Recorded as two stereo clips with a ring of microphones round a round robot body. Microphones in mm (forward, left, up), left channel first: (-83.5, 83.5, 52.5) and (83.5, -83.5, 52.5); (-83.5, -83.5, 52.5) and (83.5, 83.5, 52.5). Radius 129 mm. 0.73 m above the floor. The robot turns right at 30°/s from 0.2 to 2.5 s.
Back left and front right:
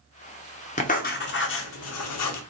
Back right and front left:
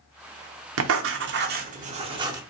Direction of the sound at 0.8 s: 75° left.